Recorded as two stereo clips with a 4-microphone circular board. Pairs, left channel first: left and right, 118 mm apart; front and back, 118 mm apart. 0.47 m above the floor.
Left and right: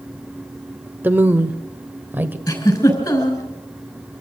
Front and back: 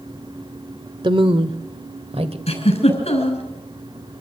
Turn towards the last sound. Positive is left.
turn(degrees=35)